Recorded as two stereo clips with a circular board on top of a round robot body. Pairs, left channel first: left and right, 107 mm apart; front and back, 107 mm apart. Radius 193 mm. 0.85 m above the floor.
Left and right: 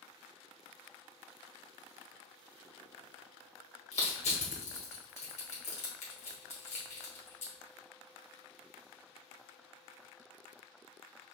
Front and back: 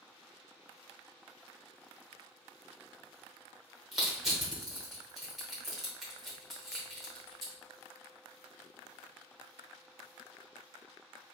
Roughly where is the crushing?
Left.